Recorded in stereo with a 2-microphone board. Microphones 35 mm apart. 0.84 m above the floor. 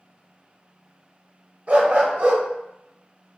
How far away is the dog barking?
About 0.9 m.